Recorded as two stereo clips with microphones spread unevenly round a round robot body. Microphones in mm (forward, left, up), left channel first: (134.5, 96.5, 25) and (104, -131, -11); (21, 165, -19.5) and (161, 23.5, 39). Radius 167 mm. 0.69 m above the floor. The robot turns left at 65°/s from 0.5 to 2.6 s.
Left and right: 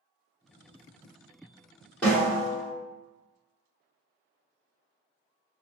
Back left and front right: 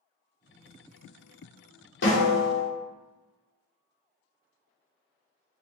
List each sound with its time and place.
2.0 s a snare drum: 170° left, 0.9 m; by 2.7 s 130° left, 0.9 m